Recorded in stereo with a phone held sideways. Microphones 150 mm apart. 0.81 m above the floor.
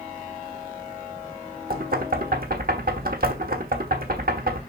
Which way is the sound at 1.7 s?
70° right (ahead or behind).